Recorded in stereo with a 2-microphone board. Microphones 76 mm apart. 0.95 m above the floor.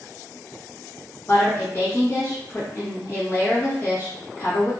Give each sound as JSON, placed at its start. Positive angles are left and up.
{"t": 1.3, "sound": "a woman speaking", "side_deg": 40, "distance_m": 1.3}